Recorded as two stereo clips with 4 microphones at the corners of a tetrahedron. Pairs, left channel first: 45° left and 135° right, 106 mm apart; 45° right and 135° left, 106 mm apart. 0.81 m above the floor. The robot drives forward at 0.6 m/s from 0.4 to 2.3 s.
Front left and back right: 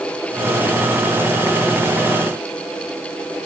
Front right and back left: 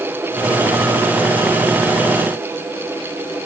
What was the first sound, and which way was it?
Only background noise.